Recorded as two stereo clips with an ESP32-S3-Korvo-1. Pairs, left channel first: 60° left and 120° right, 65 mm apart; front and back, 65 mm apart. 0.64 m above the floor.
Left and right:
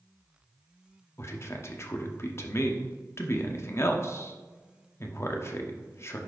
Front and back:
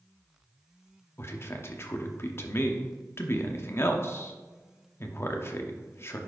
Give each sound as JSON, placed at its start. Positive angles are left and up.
{"t": 1.2, "sound": "a man speaking", "azimuth_deg": 30, "distance_m": 0.9}